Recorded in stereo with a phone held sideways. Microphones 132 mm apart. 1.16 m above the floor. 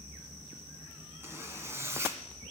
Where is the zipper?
20° right (ahead or behind), 2 m.